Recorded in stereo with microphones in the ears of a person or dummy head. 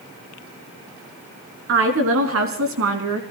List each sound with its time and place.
1.7 s a woman speaking: 75° right (ahead or behind), 3.5 m; by 3.2 s 70° right (ahead or behind), 2.5 m